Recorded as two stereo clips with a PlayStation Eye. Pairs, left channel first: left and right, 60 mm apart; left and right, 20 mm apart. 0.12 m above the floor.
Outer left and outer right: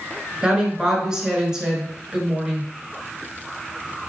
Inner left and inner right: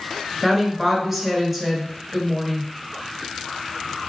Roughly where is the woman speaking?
Centre.